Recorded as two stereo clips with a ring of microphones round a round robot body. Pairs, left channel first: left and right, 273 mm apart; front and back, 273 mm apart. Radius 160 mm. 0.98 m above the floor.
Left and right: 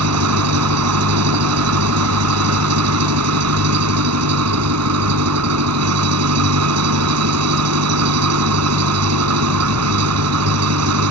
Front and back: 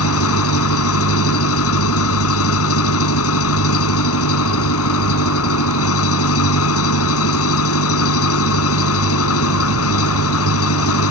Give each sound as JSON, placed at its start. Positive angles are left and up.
{"t": 0.0, "sound": "an engine running", "azimuth_deg": -45}